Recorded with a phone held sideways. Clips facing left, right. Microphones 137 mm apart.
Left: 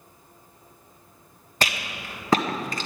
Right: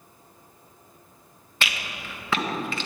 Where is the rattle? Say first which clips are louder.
Left 3 dB; 40° left (ahead or behind), 1.5 m.